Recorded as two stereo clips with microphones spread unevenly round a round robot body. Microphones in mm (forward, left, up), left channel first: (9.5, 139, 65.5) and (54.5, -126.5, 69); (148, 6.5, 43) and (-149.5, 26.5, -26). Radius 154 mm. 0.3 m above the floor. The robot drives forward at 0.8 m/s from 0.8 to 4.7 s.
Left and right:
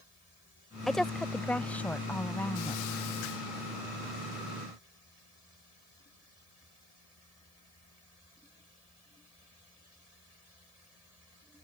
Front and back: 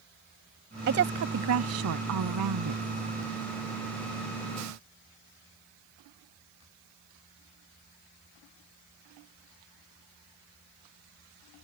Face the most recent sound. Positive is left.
turn(degrees=180)